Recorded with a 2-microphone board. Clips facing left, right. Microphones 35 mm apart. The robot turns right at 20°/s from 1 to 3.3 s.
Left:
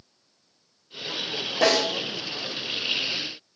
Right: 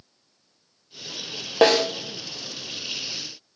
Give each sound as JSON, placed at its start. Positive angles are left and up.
{"t": 1.6, "sound": "a snare drum", "side_deg": -55, "distance_m": 1.6}